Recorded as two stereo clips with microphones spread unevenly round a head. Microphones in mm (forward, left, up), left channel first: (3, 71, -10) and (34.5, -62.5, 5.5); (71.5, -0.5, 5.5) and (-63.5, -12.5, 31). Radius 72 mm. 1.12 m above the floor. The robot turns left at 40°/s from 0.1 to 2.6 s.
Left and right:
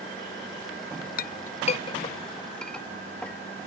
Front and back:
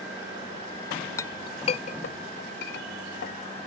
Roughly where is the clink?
Left.